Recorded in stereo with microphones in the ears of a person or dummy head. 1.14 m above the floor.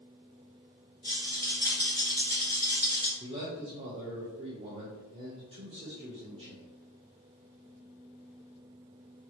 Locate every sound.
1.0 s a rattle: 15° left (ahead or behind), 1.0 m
3.2 s a man speaking: 25° right (ahead or behind), 0.8 m